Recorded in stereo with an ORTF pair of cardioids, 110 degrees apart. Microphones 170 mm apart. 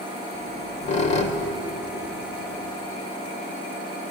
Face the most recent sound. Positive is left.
turn(degrees=45)